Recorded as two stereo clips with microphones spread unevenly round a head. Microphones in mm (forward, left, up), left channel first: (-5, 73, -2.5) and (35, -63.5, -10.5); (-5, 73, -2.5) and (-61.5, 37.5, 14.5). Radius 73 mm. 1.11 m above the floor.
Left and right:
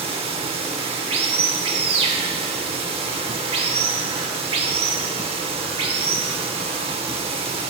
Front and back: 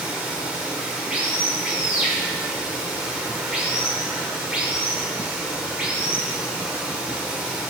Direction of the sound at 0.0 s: 100° right.